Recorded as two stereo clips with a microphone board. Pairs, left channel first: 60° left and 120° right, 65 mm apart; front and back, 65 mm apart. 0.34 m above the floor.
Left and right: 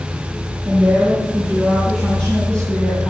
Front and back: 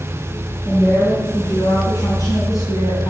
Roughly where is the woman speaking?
Ahead right.